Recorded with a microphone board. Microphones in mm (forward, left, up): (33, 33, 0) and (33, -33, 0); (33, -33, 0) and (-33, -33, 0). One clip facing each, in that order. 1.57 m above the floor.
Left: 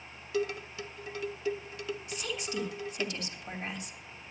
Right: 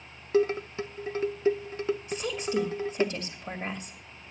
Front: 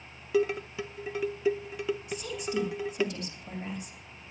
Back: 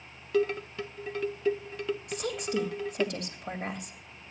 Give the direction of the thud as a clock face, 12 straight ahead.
I don't hear a thud.